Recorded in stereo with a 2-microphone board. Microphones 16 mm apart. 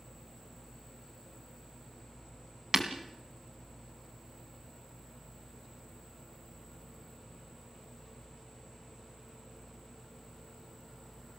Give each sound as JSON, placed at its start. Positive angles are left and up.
{"t": 2.7, "sound": "breaking glass", "side_deg": -35, "distance_m": 2.0}